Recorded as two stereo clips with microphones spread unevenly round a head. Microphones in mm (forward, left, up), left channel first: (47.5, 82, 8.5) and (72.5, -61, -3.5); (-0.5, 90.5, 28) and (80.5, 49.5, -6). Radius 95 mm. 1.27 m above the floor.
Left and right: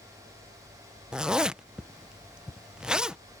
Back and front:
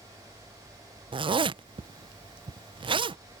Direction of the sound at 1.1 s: 5° left.